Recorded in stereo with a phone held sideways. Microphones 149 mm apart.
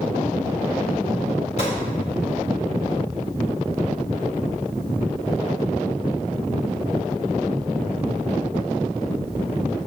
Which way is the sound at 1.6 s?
50° left (ahead or behind).